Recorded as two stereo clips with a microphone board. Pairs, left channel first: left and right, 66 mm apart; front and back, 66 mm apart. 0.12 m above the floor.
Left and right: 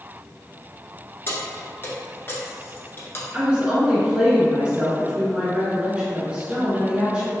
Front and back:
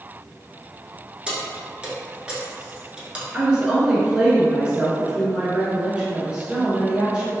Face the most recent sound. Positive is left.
turn(degrees=-130)